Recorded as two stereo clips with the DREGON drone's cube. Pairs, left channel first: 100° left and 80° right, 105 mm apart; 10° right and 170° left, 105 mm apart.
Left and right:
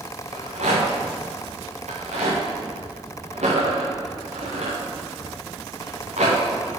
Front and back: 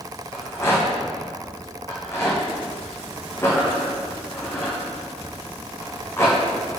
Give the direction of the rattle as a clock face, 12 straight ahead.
3 o'clock.